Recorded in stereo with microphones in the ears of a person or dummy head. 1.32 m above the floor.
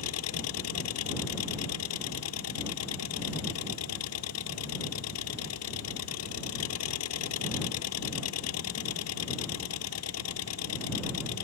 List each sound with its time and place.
0.0 s an engine running: 75° left (ahead or behind)